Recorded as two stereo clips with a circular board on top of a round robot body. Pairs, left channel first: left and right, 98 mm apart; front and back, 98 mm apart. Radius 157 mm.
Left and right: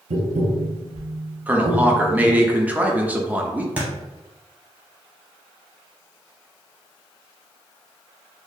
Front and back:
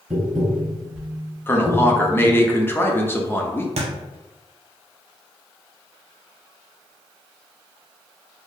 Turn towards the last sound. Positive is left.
turn(degrees=-170)